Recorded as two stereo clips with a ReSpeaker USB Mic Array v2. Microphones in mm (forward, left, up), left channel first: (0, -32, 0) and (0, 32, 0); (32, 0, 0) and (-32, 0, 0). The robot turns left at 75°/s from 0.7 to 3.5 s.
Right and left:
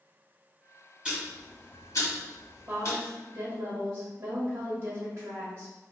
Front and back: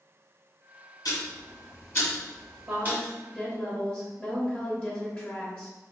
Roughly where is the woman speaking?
Behind left.